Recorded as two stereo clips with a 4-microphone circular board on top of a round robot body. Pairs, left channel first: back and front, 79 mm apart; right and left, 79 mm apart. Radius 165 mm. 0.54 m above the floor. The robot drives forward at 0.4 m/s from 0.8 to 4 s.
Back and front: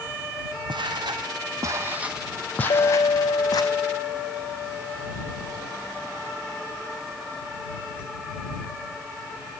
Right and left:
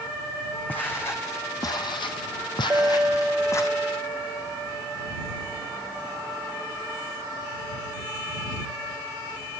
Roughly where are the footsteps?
Ahead.